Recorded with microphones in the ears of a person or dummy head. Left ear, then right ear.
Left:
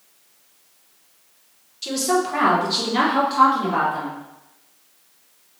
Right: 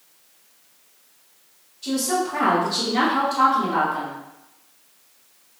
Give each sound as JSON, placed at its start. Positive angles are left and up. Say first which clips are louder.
{"t": 1.8, "sound": "a woman speaking", "louder": "left 2 dB", "side_deg": 60, "distance_m": 1.0}